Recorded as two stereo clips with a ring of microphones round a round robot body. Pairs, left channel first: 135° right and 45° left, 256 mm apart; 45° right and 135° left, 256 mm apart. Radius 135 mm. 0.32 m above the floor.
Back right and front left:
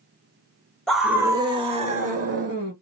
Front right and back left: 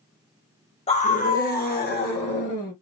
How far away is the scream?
About 0.9 m.